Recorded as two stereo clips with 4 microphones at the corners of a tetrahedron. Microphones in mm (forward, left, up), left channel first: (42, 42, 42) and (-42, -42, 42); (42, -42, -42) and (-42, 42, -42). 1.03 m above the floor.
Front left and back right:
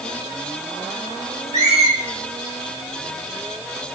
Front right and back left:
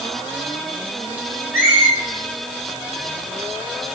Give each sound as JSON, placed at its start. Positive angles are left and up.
{"t": 1.5, "sound": "a squeak", "azimuth_deg": -155, "distance_m": 1.4}